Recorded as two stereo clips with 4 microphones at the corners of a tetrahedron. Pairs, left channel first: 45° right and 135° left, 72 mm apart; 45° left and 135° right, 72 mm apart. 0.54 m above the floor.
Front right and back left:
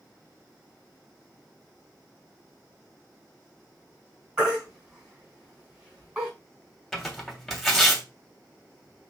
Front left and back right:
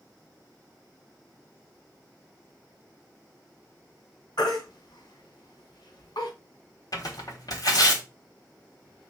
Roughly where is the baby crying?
Ahead left.